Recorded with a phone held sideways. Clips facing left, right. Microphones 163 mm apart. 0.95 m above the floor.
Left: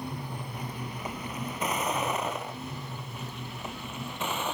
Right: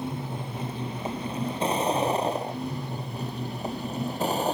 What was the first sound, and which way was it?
A vehicle, 25° right (ahead or behind).